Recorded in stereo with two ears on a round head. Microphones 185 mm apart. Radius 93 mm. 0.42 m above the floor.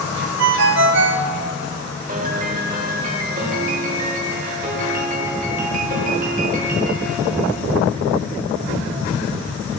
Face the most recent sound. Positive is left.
turn(degrees=-40)  # may be behind; listen again after turning